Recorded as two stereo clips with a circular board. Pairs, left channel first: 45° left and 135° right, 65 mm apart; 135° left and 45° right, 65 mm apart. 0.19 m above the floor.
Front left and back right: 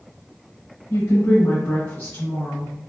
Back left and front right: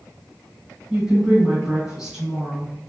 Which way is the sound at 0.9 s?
35° left.